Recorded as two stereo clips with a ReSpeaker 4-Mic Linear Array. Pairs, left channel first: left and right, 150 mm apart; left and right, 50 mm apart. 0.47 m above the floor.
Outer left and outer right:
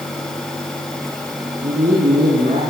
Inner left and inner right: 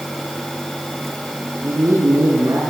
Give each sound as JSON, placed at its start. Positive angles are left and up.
{"t": 1.6, "sound": "a man speaking", "side_deg": -75, "distance_m": 7.0}